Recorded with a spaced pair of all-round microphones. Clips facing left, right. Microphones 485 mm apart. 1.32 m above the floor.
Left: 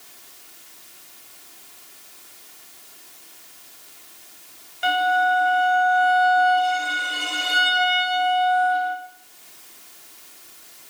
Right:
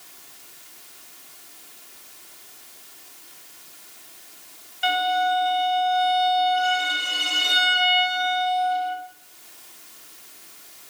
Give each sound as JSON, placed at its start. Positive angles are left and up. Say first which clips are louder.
{"t": 4.8, "sound": "a violin", "louder": "left 2 dB", "side_deg": 75, "distance_m": 2.0}